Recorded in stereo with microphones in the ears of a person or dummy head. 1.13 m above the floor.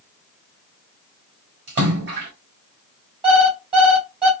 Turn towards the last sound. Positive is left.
turn(degrees=-25)  # may be behind; listen again after turning